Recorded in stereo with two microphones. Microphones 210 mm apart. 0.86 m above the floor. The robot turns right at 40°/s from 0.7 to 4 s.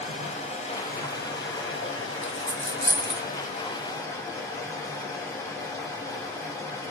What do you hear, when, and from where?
0.0 s running water: 35° left, 0.7 m; by 6.9 s 165° left, 0.7 m
2.2 s a dropped coin: 30° right (ahead or behind), 1.0 m; by 3.2 s 60° right (ahead or behind), 1.0 m